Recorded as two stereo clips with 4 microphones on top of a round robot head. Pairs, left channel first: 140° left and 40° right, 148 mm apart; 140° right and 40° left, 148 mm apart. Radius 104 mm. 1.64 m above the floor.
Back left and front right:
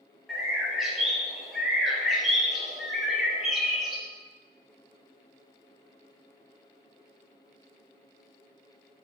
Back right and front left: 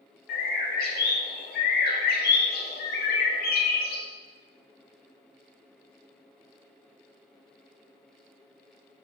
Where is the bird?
125° right, 0.6 m.